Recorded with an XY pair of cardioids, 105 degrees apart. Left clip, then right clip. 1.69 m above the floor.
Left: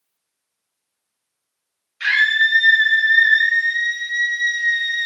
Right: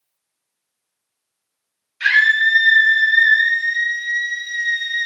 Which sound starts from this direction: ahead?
A scream, at 2.0 s.